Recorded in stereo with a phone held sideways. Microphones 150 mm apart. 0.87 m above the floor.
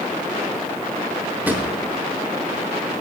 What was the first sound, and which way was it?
A drawer, 10° right (ahead or behind).